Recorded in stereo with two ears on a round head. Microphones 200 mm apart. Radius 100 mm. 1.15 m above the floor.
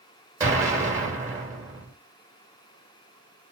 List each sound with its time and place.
0.4 s an explosion: 15° right (ahead or behind), 1.3 m